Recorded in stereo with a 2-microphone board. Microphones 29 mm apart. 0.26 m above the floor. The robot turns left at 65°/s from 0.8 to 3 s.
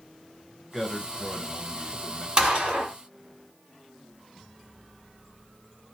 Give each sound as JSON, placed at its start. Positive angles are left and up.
{"t": 0.7, "sound": "a man speaking", "side_deg": -10, "distance_m": 0.9}
{"t": 2.4, "sound": "a gunshot", "azimuth_deg": -30, "distance_m": 1.6}